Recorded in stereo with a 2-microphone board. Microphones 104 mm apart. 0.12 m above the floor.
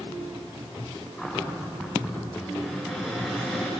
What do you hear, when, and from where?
1.2 s a cupboard door: centre (ahead or behind), 7.5 m